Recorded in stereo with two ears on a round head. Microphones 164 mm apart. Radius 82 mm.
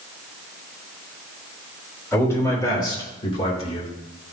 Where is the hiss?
No hiss in this recording.